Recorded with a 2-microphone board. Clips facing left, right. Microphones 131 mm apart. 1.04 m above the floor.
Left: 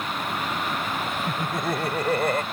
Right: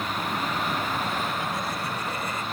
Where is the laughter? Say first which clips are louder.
Left 3 dB; 55° left (ahead or behind); by 2.4 s 65° left (ahead or behind).